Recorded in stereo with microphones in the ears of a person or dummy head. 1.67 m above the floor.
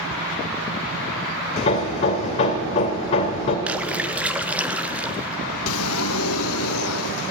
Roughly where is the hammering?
Left.